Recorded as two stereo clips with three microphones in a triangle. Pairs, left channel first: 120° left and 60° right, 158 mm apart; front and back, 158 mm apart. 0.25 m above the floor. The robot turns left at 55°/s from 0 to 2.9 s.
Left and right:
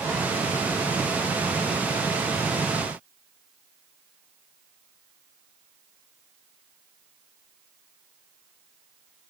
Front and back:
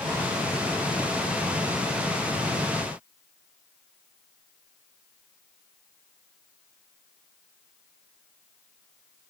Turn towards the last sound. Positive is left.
No sound to turn to.